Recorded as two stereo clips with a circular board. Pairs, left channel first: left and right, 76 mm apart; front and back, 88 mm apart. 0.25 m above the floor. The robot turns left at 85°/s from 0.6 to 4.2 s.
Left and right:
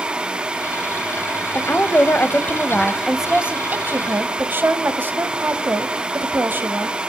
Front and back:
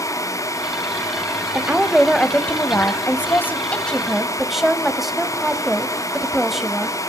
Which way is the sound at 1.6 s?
130° left.